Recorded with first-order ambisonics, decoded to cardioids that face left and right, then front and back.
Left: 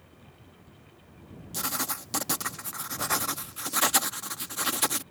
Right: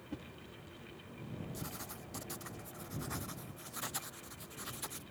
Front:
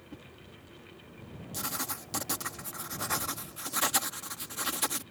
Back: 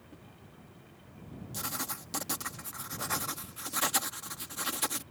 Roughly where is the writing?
Left.